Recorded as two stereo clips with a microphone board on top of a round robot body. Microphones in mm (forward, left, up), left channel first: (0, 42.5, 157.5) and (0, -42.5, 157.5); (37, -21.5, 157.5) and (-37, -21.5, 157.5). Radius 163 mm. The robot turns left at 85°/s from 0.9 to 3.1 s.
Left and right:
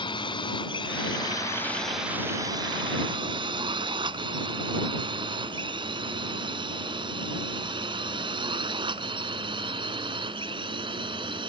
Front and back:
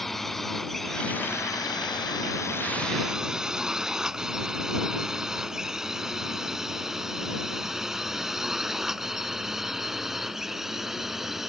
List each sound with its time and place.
0.0 s a drone: 85° left; by 11.5 s 95° right